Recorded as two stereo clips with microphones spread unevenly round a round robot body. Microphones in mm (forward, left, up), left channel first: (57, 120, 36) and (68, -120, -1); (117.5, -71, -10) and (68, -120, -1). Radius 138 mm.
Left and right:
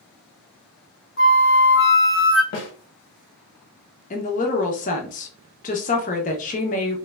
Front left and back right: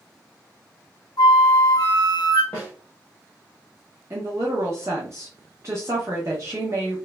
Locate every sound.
1.2 s a flute: 55° left, 0.8 m
2.5 s a snare drum: 95° left, 1.0 m
4.1 s a woman speaking: 155° left, 0.5 m